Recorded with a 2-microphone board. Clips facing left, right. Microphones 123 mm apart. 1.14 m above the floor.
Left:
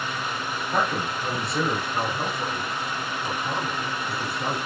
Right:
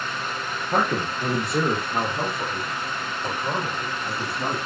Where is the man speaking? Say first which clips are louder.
Right 3 dB; 45° right (ahead or behind), 1.0 m; by 4.6 s 80° right, 3 m.